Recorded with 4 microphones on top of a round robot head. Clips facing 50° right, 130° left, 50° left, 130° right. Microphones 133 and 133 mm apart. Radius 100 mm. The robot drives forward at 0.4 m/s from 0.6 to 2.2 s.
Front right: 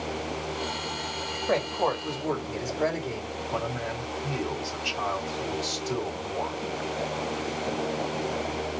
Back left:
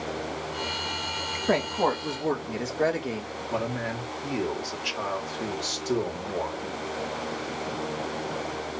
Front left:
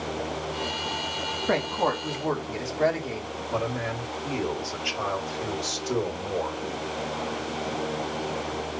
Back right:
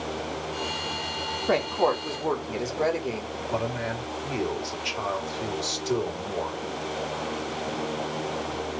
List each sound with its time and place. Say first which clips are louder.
1.5 s a woman speaking: back left 2 dB, back right 2 dB; 155° left, 2 m; by 3.3 s 160° left, 2.5 m
3.5 s a man speaking: back left 2 dB, even; 165° left, 2.5 m